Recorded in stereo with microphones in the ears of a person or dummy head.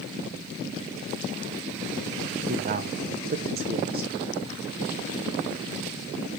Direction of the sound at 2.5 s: 45° right (ahead or behind).